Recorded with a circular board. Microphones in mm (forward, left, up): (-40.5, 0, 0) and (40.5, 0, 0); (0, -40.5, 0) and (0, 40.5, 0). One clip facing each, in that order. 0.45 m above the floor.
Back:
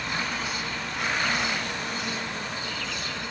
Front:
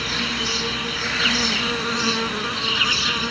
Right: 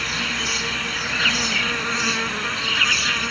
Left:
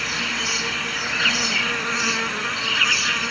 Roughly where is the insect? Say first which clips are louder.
Front 4 dB, even; ahead.